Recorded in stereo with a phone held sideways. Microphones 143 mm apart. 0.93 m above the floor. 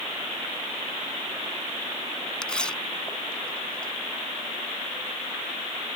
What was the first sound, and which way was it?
Tearing paper, 5° left (ahead or behind).